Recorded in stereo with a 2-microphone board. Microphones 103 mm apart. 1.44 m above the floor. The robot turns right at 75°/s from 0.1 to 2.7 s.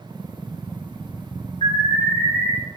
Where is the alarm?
125° left, 4.5 m; by 2.5 s 165° right, 4.5 m.